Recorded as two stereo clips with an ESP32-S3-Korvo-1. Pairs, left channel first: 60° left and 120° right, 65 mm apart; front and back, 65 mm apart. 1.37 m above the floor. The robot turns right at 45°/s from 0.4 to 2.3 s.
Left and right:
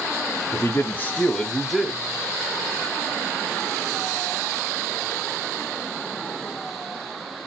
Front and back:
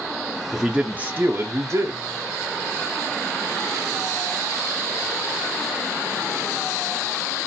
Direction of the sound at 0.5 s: 100° left.